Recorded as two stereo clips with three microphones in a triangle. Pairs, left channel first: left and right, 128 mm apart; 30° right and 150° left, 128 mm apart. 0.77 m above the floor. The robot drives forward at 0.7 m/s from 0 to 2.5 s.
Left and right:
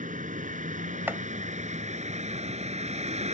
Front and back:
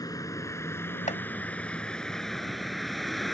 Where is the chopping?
15° right.